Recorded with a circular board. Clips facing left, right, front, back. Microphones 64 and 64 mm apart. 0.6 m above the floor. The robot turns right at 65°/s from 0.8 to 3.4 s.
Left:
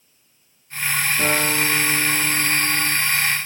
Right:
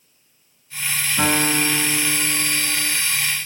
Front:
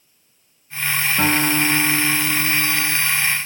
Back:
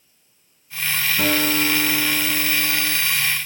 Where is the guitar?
55° right, 2.5 m; by 3.0 s 60° left, 2.5 m.